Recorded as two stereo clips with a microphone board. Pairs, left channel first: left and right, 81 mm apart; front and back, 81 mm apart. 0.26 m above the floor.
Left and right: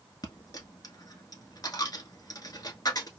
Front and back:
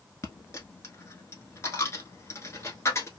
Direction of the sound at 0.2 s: 55° left.